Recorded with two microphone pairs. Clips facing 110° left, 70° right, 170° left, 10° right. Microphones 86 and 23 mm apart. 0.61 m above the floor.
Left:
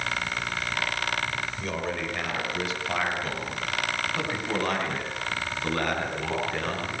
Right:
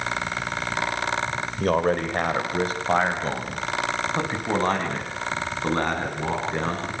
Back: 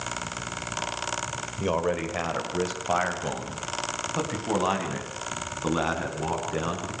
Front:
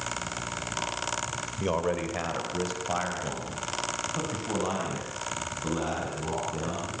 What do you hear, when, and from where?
1.6 s a man speaking: 100° right, 2.5 m; by 6.9 s 135° right, 6.5 m